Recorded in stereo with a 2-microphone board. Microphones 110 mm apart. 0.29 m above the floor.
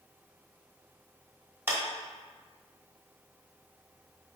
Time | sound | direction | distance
1.7 | a clap | 20° right (ahead or behind) | 1.1 m